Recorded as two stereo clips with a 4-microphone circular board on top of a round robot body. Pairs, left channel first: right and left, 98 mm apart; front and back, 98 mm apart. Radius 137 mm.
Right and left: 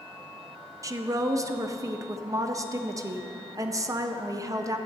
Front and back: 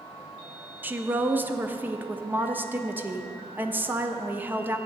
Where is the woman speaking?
120° left, 0.9 m.